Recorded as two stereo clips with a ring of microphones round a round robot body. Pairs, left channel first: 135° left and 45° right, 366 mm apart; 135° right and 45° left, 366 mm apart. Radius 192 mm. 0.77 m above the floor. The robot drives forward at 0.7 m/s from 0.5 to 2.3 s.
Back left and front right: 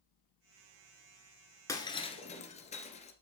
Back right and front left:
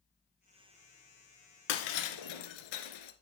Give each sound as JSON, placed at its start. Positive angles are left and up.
{"t": 1.7, "sound": "breaking glass", "azimuth_deg": -145, "distance_m": 1.4}